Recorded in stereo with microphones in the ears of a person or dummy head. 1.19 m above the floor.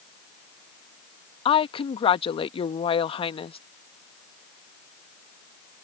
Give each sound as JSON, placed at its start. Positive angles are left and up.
{"t": 1.4, "sound": "a woman speaking", "side_deg": 25}